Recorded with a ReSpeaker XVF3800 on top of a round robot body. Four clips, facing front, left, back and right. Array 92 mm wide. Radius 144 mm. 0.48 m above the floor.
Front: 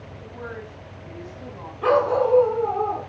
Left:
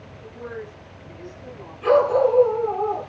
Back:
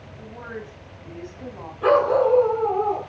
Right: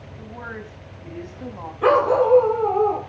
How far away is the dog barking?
About 6 m.